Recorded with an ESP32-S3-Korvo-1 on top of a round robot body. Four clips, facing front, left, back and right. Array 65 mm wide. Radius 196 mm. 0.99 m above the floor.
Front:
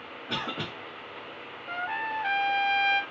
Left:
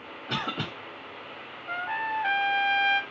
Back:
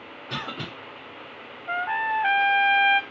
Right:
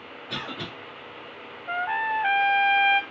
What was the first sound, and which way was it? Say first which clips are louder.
A cough: left 3 dB, even; 70° left.